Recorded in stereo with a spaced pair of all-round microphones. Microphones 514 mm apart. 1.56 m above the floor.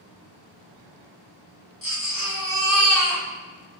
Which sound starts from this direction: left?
A baby crying, at 1.8 s.